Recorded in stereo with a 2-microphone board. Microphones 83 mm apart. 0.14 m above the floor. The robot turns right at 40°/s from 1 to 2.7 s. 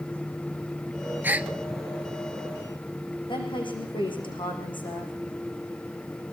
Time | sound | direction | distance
1.2 | a gasp | 25° right (ahead or behind) | 0.7 m
3.3 | a woman speaking | 75° left (ahead or behind) | 8 m